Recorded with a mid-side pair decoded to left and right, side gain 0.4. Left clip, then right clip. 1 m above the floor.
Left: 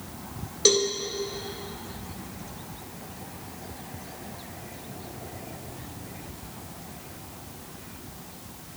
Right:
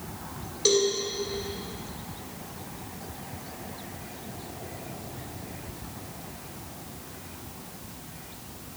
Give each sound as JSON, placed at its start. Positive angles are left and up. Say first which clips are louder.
{"t": 0.7, "sound": "a cowbell", "louder": "left 1 dB", "azimuth_deg": 40, "distance_m": 2.0}